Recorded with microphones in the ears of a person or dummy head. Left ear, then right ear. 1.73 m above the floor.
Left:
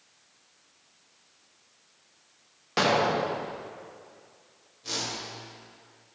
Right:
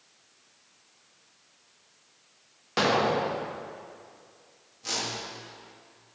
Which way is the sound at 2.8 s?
5° left (ahead or behind).